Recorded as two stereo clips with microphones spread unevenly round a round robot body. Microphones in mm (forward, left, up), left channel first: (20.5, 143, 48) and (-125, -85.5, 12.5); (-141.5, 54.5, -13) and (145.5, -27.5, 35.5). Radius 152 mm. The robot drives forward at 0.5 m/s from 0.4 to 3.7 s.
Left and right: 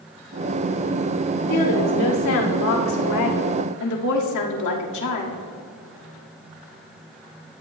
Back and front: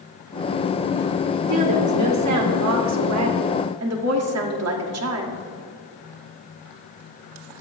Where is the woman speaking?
15° left, 3 m; by 5.4 s 25° left, 2 m.